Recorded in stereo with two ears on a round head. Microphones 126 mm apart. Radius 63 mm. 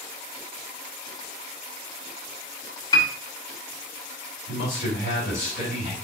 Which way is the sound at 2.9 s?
30° left (ahead or behind).